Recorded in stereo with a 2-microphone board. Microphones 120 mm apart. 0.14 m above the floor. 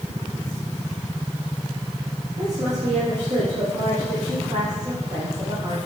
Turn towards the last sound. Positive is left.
turn(degrees=-75)  # may be behind; listen again after turning